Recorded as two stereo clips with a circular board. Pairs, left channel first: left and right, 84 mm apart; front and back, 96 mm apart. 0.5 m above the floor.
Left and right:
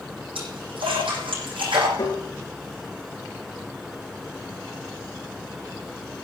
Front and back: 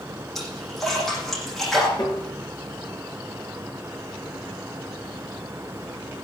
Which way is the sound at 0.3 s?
90° right.